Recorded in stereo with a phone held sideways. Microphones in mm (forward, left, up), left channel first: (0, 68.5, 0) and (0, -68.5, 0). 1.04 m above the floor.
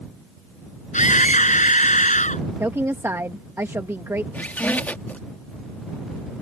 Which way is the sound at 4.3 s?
10° left (ahead or behind).